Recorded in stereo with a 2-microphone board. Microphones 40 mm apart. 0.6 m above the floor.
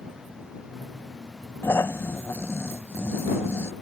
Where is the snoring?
80° left.